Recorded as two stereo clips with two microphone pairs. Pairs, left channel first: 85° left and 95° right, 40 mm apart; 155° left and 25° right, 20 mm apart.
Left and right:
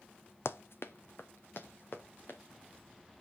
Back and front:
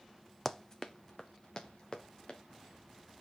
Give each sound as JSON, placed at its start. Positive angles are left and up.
{"t": 0.5, "sound": "running footsteps", "azimuth_deg": 80, "distance_m": 0.7}